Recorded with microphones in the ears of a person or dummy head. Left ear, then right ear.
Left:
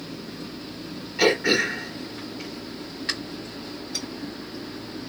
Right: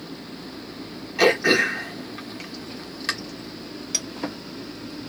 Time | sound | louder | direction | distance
1.2 | throat clearing | right 2 dB | 30° right (ahead or behind) | 1.2 m
3.9 | a clink | right 5 dB | 60° right (ahead or behind) | 1.9 m